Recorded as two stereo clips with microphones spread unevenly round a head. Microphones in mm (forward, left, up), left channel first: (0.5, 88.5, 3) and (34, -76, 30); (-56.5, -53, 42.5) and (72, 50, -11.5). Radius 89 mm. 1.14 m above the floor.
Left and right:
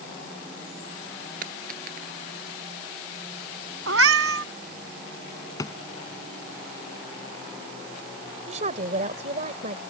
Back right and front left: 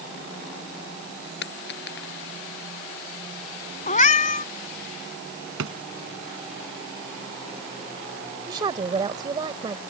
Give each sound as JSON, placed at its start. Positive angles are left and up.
{"t": 1.4, "sound": "a dropped coin", "azimuth_deg": -120}
{"t": 3.9, "sound": "a cat meowing", "azimuth_deg": -95}
{"t": 5.6, "sound": "a drawer", "azimuth_deg": 30}
{"t": 8.5, "sound": "a woman speaking", "azimuth_deg": -30}